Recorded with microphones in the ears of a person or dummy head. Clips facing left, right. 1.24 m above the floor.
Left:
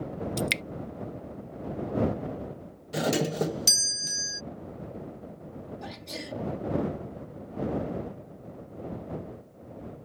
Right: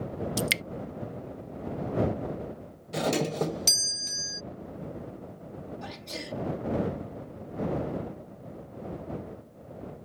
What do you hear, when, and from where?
0.4 s dripping: 5° right (ahead or behind)
2.9 s a doorbell: 5° left (ahead or behind)
5.8 s a sneeze: centre (ahead or behind)